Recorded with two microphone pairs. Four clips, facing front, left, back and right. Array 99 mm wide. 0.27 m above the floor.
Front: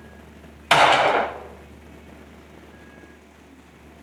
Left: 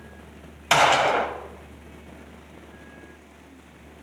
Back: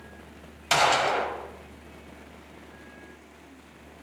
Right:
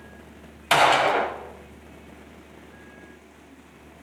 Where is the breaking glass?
I don't hear breaking glass.